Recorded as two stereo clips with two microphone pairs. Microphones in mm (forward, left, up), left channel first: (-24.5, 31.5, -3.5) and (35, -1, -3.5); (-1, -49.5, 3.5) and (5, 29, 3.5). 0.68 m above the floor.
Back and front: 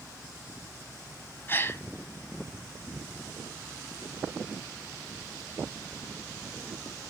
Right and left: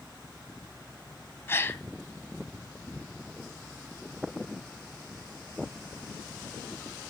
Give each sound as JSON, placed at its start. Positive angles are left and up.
{"t": 1.5, "sound": "a gasp", "azimuth_deg": -155, "distance_m": 1.6}